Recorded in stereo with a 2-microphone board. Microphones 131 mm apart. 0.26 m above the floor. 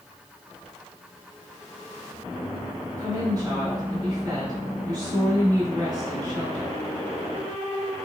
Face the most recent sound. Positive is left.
turn(degrees=-30)  # may be behind; listen again after turning